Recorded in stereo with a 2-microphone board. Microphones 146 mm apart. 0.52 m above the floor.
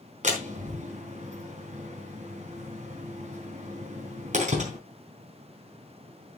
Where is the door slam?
55° right (ahead or behind), 3.5 m.